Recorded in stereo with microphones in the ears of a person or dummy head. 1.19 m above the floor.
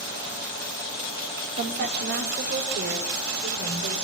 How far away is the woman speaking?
About 3.5 m.